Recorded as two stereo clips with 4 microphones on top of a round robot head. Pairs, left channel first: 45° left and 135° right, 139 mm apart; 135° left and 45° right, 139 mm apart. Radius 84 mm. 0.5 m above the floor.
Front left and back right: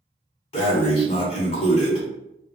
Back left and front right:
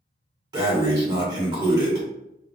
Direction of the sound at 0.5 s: 10° left.